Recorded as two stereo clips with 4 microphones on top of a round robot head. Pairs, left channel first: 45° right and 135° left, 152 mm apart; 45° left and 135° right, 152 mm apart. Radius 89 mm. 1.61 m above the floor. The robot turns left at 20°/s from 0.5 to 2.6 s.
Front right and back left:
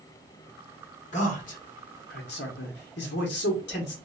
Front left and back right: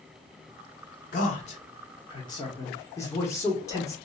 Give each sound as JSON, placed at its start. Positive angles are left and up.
{"t": 1.1, "sound": "a man speaking", "azimuth_deg": 5, "distance_m": 0.8}